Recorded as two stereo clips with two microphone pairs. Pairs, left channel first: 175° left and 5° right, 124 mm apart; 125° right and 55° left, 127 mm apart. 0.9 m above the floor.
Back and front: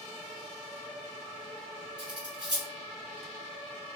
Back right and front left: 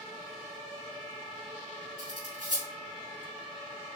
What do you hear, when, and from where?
2.0 s cutlery clinking: 50° left, 4.5 m